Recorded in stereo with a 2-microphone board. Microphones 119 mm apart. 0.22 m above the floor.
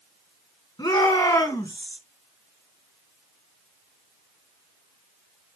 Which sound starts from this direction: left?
A shout, at 0.8 s.